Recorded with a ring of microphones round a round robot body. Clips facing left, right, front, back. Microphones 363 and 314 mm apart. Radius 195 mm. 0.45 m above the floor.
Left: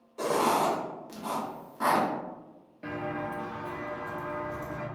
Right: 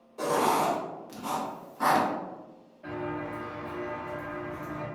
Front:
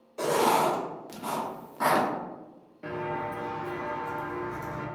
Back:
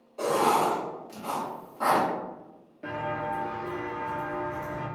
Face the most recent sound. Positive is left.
turn(degrees=45)